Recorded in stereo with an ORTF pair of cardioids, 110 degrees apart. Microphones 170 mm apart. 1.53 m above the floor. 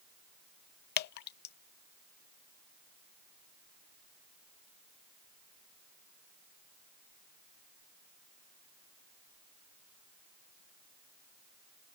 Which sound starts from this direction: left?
Dripping, at 1.0 s.